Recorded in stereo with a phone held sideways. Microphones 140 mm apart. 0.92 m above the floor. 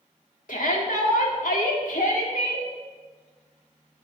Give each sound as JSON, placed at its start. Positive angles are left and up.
{"t": 0.5, "sound": "a shout", "side_deg": 75, "distance_m": 2.0}